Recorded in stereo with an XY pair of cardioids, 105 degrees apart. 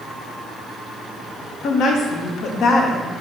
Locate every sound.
1.6 s a woman speaking: 65° left, 0.6 m